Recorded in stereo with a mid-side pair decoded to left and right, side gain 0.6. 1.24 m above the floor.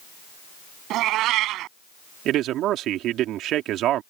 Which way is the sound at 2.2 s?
60° right.